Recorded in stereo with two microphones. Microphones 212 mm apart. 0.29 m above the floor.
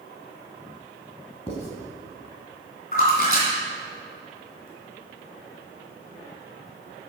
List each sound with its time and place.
1.5 s writing: 25° left (ahead or behind), 1.8 m
2.9 s a splash: 45° left (ahead or behind), 3 m